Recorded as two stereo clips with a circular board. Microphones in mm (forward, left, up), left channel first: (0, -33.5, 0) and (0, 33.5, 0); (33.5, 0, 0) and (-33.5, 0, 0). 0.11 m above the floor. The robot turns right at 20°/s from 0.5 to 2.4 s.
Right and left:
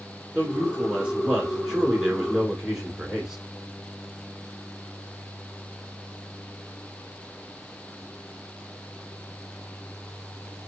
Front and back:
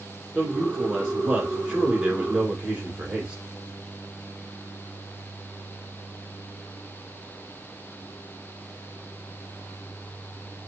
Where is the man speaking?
125° left, 1.2 m; by 3.4 s 165° left, 1.2 m.